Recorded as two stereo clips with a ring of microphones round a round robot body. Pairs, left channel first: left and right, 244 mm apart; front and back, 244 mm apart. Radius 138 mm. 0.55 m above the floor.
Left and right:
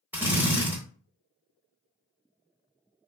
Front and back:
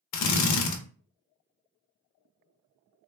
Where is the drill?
5° right, 0.7 m.